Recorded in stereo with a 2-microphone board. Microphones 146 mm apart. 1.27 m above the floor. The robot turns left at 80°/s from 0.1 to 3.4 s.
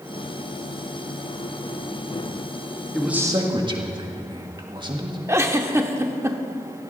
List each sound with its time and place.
2.9 s a man speaking: 5° left, 1.7 m; by 5.2 s 30° right, 1.7 m
5.3 s a giggle: 20° right (ahead or behind), 0.9 m